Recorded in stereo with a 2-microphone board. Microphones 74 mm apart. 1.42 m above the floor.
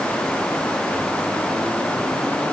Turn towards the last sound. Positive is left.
No sound to turn to.